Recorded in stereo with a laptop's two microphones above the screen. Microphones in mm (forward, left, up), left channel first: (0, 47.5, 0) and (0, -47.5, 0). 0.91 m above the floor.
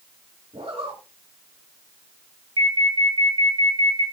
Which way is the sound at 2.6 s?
75° right (ahead or behind).